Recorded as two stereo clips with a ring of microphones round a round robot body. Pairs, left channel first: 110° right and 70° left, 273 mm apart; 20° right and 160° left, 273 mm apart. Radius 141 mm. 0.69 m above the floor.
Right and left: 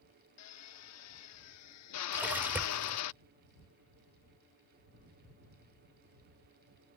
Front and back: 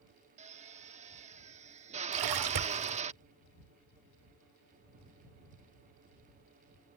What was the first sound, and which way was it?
A drill, 135° right.